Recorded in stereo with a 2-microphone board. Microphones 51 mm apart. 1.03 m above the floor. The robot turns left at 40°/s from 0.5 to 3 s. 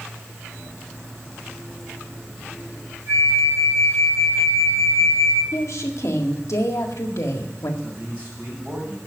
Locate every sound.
3.1 s a flute: 80° right, 4.5 m
5.5 s a woman speaking: 70° left (ahead or behind), 1.8 m
7.8 s a man speaking: 30° right (ahead or behind), 6 m